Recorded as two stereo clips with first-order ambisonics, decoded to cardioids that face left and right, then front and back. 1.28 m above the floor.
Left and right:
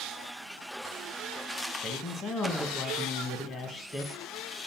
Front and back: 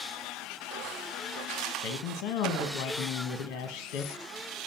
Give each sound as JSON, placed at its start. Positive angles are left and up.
{"t": 1.8, "sound": "a man speaking", "azimuth_deg": 25, "distance_m": 1.3}